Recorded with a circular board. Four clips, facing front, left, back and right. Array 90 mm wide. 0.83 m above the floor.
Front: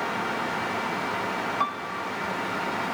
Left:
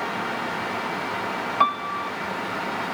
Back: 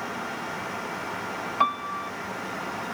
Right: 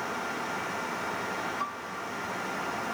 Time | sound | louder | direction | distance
1.6 | a piano | left 12 dB, back 3 dB | 115° left | ?